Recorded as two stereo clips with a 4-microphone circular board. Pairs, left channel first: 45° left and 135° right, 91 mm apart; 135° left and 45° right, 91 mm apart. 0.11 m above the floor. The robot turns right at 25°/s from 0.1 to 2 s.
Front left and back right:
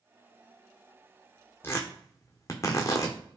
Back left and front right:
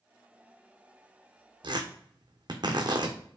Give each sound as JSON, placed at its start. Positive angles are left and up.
{"t": 1.6, "sound": "tearing paper", "azimuth_deg": -20, "distance_m": 1.2}